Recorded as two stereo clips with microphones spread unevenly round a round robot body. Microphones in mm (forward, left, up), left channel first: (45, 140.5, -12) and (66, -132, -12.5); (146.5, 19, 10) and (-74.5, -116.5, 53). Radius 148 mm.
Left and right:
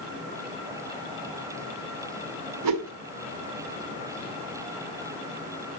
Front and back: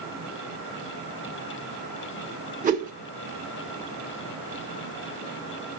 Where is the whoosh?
90° right, 1.6 m.